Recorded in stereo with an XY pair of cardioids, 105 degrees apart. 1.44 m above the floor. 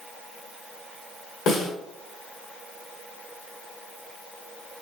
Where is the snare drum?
65° left, 1.1 m.